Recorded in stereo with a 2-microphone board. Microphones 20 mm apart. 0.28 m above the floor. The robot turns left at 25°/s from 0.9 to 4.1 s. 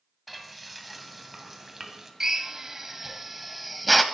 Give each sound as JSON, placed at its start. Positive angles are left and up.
{"t": 0.3, "sound": "frying", "side_deg": 0, "distance_m": 2.0}
{"t": 2.2, "sound": "a drill", "side_deg": -30, "distance_m": 1.0}